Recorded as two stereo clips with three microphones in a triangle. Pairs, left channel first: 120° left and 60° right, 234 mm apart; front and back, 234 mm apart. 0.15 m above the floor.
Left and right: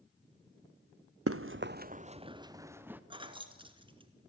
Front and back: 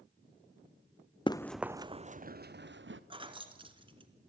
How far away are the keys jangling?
About 1.4 m.